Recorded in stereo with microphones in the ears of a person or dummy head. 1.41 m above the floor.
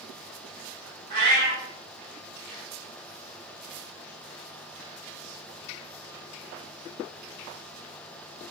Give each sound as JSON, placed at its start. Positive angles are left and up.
{"t": 1.1, "sound": "a cat meowing", "side_deg": -55, "distance_m": 1.5}